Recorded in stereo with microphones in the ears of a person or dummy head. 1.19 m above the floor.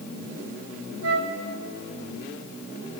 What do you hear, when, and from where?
1.0 s a flute: 65° right (ahead or behind), 3.5 m